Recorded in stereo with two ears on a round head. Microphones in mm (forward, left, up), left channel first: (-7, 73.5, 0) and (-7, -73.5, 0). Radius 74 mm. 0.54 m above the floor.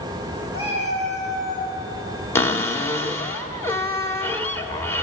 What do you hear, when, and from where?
0.5 s a cat meowing: 35° left (ahead or behind), 7.5 m; by 1.8 s 40° left (ahead or behind), 9 m
2.4 s a cupboard door: 15° left (ahead or behind), 1.6 m